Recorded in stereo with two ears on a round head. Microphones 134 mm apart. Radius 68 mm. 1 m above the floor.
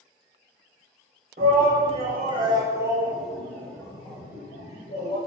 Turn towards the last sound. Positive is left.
turn(degrees=60)  # may be behind; listen again after turning